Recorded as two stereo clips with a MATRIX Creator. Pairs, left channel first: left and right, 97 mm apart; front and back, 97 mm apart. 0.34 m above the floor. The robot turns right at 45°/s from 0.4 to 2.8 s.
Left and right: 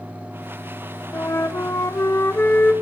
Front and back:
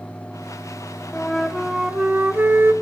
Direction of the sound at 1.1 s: 75° left.